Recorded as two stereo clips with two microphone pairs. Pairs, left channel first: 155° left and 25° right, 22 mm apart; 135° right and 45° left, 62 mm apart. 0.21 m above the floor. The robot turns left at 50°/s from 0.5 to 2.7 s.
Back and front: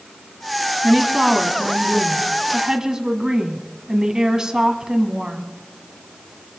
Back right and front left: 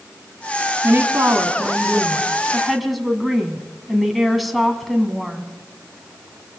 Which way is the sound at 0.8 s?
45° left.